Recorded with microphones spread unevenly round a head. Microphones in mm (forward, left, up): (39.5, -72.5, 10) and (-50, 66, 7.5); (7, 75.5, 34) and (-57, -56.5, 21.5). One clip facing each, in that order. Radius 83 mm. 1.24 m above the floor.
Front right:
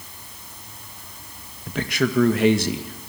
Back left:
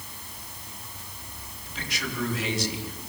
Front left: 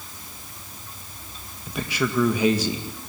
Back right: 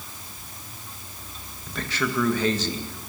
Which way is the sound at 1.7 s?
15° right.